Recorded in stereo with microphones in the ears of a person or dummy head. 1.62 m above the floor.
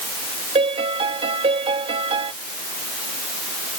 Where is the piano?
30° right (ahead or behind).